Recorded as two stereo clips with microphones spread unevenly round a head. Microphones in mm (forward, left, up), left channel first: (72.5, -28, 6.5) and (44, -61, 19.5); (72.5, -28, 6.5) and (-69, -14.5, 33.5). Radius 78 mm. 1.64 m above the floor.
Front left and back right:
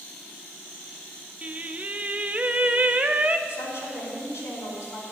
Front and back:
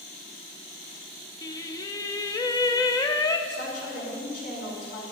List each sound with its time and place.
1.4 s singing: 70° right, 0.7 m
3.5 s a woman speaking: 40° left, 4.5 m